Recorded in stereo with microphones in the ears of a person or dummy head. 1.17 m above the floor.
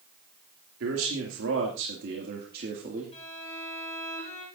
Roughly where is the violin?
Left.